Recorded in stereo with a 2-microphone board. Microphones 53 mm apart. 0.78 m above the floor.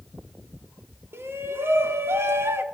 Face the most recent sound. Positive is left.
turn(degrees=-50)  # may be behind; listen again after turning